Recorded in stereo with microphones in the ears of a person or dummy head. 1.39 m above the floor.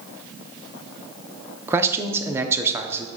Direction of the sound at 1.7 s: 15° right (ahead or behind).